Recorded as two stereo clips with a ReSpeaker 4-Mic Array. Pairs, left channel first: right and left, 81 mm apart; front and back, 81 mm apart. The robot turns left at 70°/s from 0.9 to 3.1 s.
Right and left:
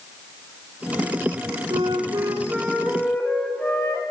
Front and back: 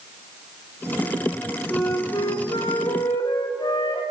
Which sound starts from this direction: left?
A flute, at 1.7 s.